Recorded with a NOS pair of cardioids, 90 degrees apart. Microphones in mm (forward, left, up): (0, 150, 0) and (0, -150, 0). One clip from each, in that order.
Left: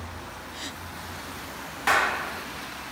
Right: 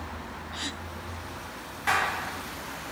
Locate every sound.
0.5 s a gasp: 15° right, 2.5 m
1.9 s a clap: 35° left, 2.5 m